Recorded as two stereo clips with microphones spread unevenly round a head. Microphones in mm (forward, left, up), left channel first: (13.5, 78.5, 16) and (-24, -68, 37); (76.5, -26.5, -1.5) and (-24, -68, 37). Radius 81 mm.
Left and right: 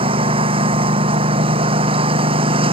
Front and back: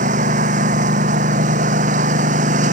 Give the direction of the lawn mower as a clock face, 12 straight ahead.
5 o'clock.